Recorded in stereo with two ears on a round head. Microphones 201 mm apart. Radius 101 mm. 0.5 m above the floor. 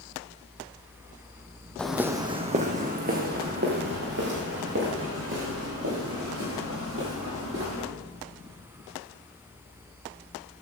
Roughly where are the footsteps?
Centre.